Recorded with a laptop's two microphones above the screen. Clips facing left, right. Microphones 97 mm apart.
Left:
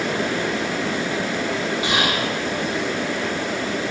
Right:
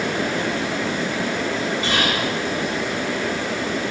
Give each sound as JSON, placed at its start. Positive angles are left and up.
{"t": 1.8, "sound": "whispering", "side_deg": 15, "distance_m": 1.7}